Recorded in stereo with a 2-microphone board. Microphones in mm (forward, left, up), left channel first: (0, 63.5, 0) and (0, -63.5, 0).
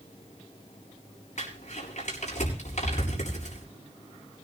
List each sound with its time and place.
1.4 s crumpling: 65° left (ahead or behind), 7 m